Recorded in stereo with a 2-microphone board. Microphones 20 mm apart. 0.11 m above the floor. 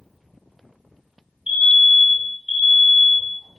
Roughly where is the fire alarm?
Right.